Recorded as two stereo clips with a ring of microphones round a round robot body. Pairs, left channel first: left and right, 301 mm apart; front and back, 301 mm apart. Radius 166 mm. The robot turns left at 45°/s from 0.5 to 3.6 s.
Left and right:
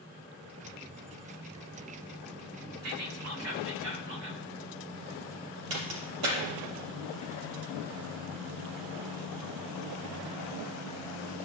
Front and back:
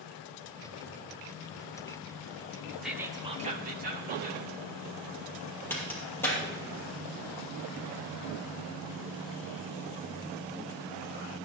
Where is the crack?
85° right, 5 m.